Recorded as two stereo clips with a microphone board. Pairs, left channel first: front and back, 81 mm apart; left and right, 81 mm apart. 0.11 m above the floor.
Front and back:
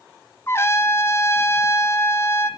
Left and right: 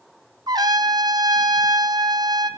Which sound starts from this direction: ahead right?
A trumpet, at 0.5 s.